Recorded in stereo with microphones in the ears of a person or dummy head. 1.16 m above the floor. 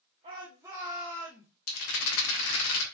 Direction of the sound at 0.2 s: 30° right (ahead or behind).